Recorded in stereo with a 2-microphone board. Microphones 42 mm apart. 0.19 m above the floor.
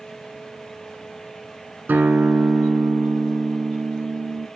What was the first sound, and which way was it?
A guitar, 50° right (ahead or behind).